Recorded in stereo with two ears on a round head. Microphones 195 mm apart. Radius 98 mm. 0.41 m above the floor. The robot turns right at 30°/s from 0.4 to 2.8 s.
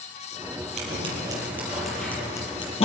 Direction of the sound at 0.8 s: 35° right (ahead or behind).